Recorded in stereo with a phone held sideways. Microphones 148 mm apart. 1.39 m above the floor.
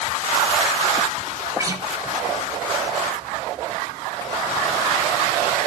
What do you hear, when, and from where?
1.6 s a guitar: 20° right (ahead or behind), 5 m